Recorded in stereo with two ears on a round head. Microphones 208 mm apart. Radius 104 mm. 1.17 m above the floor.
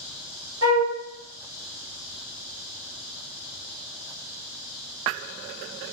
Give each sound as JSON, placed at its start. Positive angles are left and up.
{"t": 0.6, "sound": "a flute", "side_deg": -20, "distance_m": 0.9}